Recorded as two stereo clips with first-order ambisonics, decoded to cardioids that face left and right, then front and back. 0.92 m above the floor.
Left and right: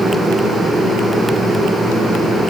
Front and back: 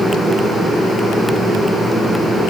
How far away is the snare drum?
I don't hear a snare drum.